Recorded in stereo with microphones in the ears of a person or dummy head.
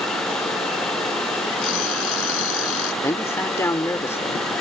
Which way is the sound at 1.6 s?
85° left.